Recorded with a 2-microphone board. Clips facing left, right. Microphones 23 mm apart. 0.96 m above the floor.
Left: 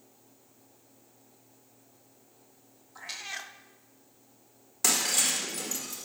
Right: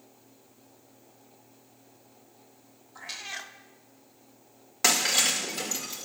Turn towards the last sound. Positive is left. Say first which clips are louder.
# right 3 dB
turn(degrees=-30)  # may be behind; listen again after turning